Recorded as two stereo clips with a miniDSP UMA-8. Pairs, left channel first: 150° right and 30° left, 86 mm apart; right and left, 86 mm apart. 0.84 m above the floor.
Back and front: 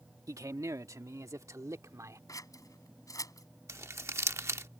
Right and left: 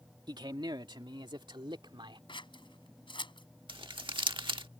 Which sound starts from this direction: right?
Scissors, at 2.3 s.